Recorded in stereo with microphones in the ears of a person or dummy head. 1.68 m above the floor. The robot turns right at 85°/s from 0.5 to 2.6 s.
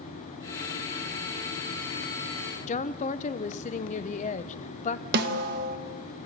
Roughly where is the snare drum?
Right.